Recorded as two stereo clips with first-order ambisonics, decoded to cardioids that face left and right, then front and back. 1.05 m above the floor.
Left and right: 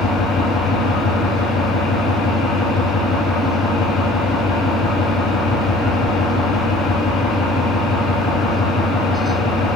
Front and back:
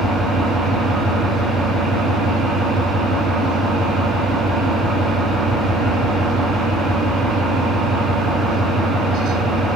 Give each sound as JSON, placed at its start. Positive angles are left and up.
{"t": 0.0, "sound": "an engine running", "azimuth_deg": 105, "distance_m": 1.5}